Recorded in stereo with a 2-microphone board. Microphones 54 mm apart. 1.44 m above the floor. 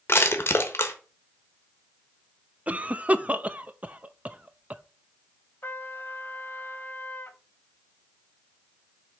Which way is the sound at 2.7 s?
30° right (ahead or behind).